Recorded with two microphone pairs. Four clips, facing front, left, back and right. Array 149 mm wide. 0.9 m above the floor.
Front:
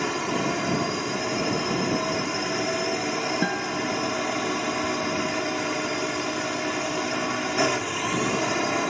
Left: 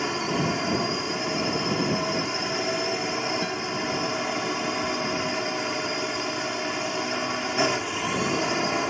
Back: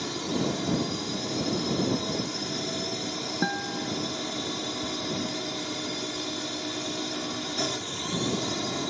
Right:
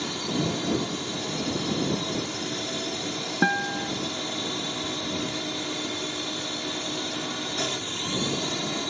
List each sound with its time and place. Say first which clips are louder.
0.0 s a drone: left 3 dB, front 4 dB; 45° left
3.4 s a guitar: right 3 dB, front 4 dB; 105° right